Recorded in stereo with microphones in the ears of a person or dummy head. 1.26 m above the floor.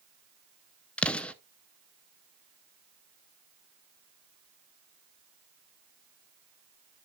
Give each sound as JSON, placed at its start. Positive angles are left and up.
{"t": 1.0, "sound": "an explosion", "side_deg": 10, "distance_m": 0.5}